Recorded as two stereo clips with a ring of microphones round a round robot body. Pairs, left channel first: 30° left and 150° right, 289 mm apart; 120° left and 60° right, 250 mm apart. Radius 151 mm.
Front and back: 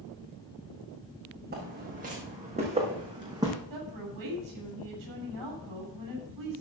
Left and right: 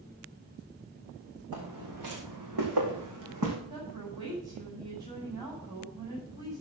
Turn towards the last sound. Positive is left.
turn(degrees=-135)